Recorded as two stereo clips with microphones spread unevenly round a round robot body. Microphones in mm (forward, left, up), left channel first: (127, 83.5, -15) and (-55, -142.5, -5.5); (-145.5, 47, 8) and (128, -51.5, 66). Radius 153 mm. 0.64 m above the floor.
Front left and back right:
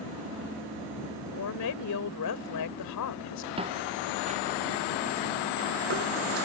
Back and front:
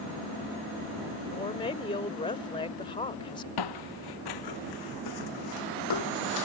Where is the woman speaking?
90° left.